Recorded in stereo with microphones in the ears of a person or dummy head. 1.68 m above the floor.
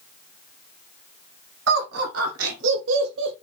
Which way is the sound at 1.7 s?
85° right.